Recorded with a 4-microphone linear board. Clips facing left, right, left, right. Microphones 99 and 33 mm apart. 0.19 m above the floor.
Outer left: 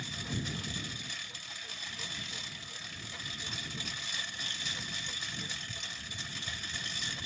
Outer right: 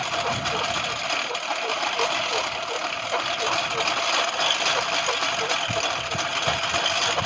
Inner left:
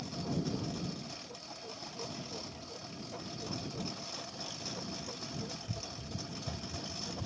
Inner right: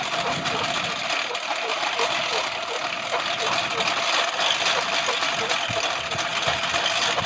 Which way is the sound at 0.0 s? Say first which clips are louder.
Outer right 14 dB, inner right 13 dB; 75° right (ahead or behind).